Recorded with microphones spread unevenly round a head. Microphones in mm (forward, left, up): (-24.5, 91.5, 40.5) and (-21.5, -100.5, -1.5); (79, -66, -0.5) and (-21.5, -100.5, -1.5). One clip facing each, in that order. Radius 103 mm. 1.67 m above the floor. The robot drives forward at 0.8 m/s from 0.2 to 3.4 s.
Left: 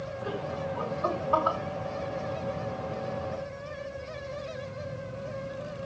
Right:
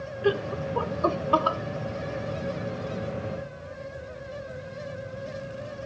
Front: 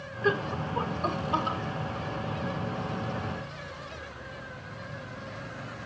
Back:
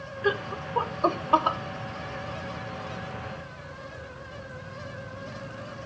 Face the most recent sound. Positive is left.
turn(degrees=-165)